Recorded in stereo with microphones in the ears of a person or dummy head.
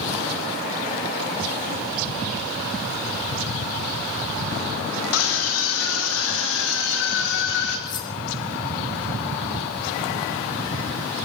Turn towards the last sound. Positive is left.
turn(degrees=25)  # may be behind; listen again after turning